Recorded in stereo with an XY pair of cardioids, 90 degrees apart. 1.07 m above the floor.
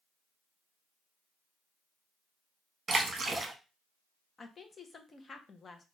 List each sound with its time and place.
2.9 s a splash: 35° right, 1.0 m
4.4 s a woman speaking: 40° left, 0.9 m